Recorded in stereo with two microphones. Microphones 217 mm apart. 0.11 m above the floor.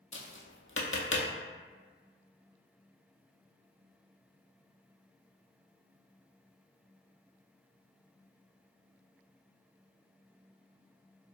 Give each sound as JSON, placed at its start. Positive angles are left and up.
{"t": 0.1, "sound": "tapping", "side_deg": 75, "distance_m": 0.7}